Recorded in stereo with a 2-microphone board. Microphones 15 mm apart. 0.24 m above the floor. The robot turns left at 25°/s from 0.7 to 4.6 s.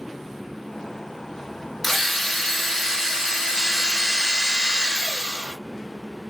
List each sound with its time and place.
1.8 s a drill: 15° left, 3 m; by 5.6 s 50° right, 3 m